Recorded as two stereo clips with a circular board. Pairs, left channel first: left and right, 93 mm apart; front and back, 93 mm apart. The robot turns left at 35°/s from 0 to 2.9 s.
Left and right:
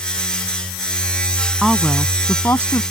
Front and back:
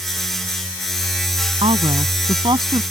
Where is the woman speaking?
175° right; by 2.8 s 140° left.